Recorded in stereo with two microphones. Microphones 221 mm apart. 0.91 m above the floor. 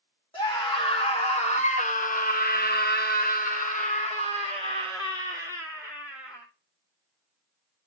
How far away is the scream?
About 2.0 m.